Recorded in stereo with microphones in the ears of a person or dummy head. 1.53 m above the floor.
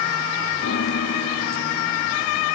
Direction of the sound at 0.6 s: 60° left (ahead or behind).